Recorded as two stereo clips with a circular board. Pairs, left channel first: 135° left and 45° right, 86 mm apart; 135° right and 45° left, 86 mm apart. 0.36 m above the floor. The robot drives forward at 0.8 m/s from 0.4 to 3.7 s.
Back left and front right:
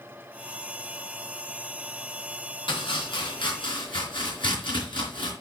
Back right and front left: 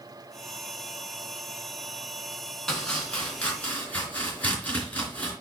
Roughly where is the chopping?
Behind left.